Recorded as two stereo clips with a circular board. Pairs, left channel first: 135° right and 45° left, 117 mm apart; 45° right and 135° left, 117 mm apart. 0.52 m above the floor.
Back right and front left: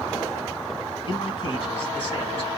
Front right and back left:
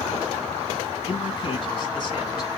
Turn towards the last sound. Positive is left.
turn(degrees=-95)